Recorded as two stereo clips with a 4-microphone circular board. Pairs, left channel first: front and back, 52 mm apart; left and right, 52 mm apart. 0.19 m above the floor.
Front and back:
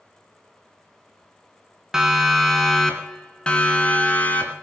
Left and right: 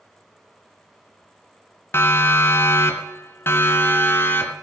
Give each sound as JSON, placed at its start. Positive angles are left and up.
{"t": 1.9, "sound": "a siren", "azimuth_deg": 100, "distance_m": 2.5}